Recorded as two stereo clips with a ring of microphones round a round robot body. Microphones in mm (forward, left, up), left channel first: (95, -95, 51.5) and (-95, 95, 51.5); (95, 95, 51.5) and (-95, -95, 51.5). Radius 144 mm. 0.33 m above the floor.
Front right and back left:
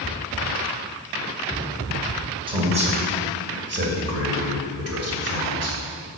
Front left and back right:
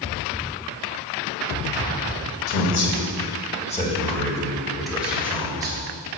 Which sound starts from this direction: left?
A man speaking, at 2.5 s.